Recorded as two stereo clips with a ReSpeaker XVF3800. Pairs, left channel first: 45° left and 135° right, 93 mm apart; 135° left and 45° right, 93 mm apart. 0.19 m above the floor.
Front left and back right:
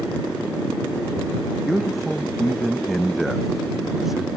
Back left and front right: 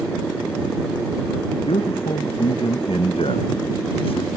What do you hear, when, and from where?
1.7 s a man speaking: 135° left; by 4.3 s 140° left